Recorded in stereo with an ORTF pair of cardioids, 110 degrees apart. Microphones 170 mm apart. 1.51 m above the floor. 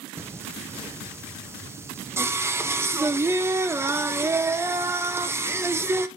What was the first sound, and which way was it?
Singing, 15° right.